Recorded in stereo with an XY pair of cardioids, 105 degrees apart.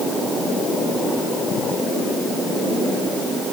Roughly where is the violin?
I don't hear a violin.